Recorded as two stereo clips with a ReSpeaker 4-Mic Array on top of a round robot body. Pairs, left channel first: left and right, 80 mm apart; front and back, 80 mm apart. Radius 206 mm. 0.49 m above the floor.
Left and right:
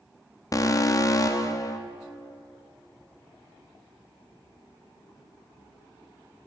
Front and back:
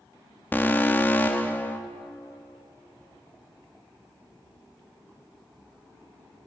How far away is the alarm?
About 1.0 m.